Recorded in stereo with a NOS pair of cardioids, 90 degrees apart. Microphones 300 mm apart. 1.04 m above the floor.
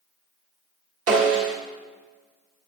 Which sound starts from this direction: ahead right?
A snare drum, at 1.1 s.